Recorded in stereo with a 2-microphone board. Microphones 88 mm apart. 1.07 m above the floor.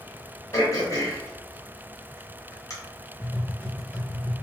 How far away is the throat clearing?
About 0.9 m.